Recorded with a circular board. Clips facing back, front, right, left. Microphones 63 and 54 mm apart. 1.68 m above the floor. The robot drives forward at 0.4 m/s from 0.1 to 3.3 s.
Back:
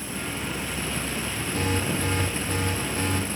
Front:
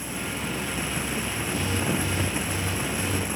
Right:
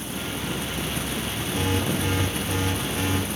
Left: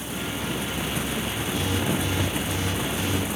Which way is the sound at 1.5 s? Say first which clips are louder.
Back 1 dB, right 1 dB; 140° right.